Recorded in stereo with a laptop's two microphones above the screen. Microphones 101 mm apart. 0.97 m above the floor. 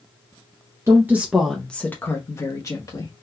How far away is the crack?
I don't hear a crack.